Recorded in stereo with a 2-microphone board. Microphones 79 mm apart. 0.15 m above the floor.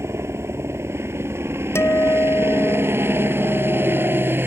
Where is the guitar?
35° left (ahead or behind).